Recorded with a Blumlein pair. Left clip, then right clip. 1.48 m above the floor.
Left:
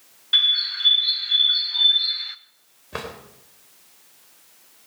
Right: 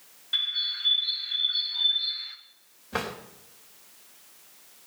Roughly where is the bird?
Left.